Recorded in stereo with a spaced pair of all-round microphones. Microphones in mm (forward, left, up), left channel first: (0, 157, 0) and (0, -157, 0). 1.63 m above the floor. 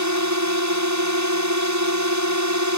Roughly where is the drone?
Right.